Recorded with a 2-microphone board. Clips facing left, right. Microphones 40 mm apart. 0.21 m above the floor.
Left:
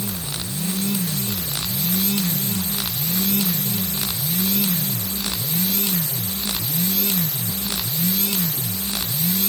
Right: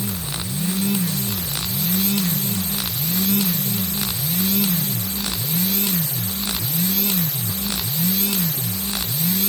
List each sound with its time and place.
Only background noise.